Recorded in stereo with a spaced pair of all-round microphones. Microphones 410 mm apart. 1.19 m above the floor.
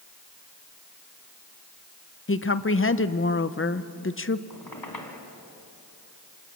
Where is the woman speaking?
30° left (ahead or behind), 0.6 m.